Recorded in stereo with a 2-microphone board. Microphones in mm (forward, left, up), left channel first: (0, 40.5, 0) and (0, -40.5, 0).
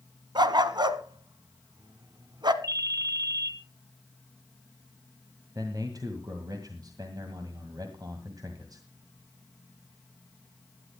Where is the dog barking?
65° right (ahead or behind), 1.0 m.